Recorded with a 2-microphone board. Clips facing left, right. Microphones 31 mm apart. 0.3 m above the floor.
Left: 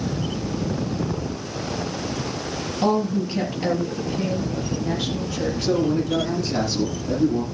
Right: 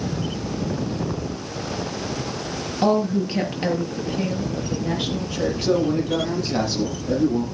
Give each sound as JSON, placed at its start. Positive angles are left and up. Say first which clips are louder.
{"t": 2.8, "sound": "a woman speaking", "louder": "right 2 dB", "side_deg": -25, "distance_m": 5.0}
{"t": 5.6, "sound": "a man speaking", "louder": "even", "side_deg": -20, "distance_m": 8.5}